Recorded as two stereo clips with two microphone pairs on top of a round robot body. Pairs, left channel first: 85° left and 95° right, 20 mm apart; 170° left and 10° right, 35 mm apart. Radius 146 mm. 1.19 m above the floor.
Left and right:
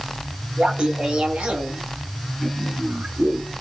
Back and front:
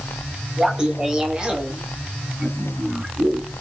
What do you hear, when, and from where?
0.6 s laughter: 75° right, 2.5 m; by 3.6 s 65° right, 4 m